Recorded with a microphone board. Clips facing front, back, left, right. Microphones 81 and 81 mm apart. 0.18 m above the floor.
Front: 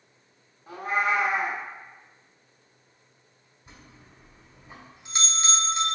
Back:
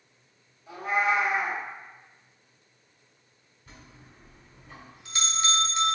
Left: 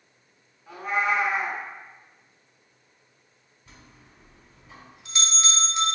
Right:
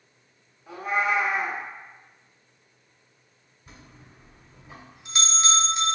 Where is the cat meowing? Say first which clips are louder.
Even, even; 5° right, 0.8 m.